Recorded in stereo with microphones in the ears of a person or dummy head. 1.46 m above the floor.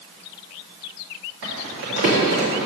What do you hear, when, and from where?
1.4 s crumpling: 70° right (ahead or behind), 2.5 m